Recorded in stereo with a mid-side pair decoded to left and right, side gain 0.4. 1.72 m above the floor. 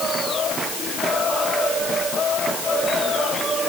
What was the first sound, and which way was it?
Only background noise.